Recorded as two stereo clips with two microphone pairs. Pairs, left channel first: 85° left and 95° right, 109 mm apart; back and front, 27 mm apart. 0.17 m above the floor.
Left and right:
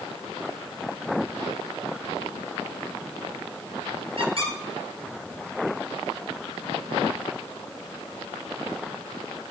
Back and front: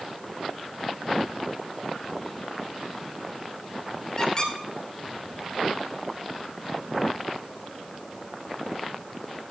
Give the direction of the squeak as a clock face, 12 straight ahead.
4 o'clock.